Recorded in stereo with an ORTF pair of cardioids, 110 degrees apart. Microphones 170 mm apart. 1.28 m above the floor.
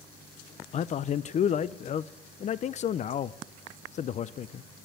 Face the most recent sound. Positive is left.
turn(degrees=45)